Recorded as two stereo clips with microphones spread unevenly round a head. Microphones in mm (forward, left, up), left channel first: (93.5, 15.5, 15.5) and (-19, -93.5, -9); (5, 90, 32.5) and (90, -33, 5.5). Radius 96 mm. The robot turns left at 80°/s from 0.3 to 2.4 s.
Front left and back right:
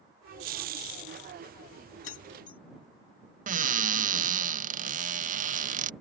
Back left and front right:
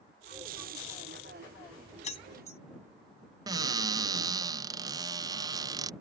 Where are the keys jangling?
80° left; by 2.6 s 55° left.